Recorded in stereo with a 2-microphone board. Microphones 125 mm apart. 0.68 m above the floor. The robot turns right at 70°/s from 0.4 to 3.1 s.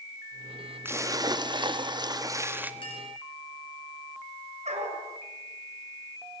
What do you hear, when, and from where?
0.8 s a splash: 150° right, 1.4 m; by 2.7 s 20° right, 1.4 m
2.8 s a clink: 45° left (ahead or behind), 7.5 m; by 3.1 s 65° left (ahead or behind), 7.5 m
4.7 s a dog barking: 60° right (ahead or behind), 4.5 m